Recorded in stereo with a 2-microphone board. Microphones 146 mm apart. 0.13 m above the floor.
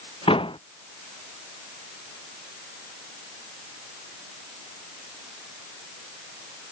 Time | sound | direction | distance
0.3 | a door slam | 35° left (ahead or behind) | ?